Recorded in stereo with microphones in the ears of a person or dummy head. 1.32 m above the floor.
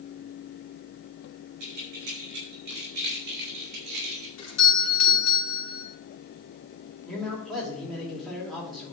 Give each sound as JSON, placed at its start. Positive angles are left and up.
{"t": 1.6, "sound": "keys jangling", "side_deg": -55, "distance_m": 4.0}
{"t": 4.4, "sound": "a doorbell", "side_deg": 80, "distance_m": 2.5}
{"t": 7.0, "sound": "a man speaking", "side_deg": 0, "distance_m": 2.5}